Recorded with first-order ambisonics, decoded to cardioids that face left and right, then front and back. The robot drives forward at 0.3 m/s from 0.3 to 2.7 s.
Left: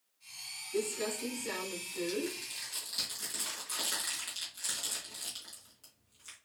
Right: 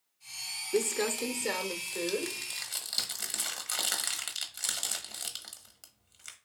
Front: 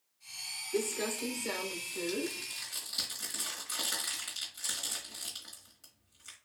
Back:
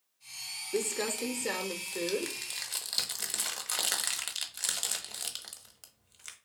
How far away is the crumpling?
About 0.6 m.